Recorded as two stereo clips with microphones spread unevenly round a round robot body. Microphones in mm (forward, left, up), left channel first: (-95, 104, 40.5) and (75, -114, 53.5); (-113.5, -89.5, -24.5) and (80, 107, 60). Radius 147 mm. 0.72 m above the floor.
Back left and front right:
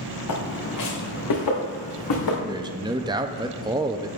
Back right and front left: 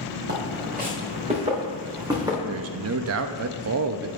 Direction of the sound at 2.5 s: 15° left.